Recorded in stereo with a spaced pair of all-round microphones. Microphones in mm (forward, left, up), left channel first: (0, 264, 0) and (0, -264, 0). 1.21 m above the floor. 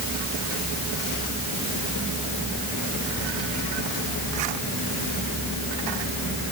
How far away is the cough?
No cough in this recording.